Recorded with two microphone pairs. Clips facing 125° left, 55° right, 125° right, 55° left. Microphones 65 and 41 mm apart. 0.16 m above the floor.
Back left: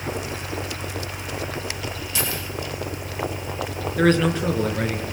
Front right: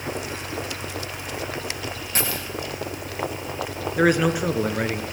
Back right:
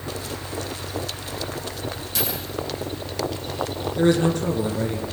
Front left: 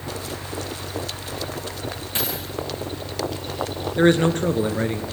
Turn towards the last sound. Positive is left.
turn(degrees=20)